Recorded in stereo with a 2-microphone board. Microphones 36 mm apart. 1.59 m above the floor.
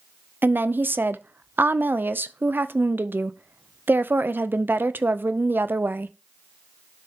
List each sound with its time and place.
0.4 s a woman speaking: 75° right (ahead or behind), 0.5 m